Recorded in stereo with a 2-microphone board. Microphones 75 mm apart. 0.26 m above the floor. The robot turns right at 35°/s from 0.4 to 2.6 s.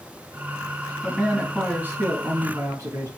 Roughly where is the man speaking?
Behind.